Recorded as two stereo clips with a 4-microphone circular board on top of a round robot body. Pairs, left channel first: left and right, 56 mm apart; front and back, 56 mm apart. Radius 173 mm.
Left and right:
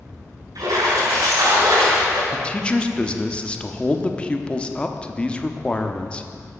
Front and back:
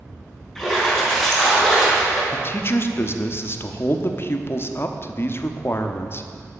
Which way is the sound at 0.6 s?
85° right.